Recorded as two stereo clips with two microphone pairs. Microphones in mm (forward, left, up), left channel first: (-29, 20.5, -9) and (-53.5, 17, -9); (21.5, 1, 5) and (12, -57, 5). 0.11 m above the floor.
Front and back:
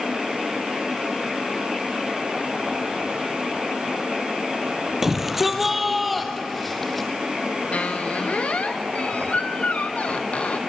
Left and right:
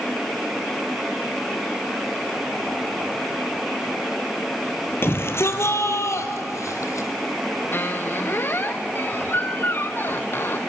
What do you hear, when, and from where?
5.0 s a shout: 115° left, 2.5 m; by 7.1 s 90° left, 3.5 m
7.7 s a squeak: 30° left, 1.6 m